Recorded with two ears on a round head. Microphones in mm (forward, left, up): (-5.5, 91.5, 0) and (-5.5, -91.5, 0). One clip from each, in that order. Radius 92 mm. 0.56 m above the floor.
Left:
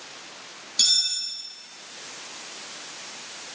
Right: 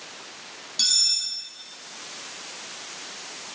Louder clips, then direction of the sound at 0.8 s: Even; 20° left (ahead or behind).